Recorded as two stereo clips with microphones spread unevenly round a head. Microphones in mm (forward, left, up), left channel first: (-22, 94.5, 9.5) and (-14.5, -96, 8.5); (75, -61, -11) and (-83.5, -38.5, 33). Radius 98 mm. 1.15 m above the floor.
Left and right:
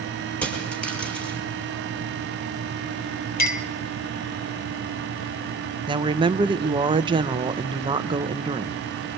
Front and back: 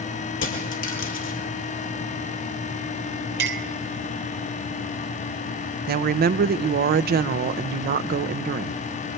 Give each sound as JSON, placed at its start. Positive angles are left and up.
{"t": 0.4, "sound": "a dropped coin", "azimuth_deg": 10, "distance_m": 5.0}
{"t": 3.4, "sound": "a clink", "azimuth_deg": 135, "distance_m": 2.5}
{"t": 5.9, "sound": "a woman speaking", "azimuth_deg": -155, "distance_m": 0.8}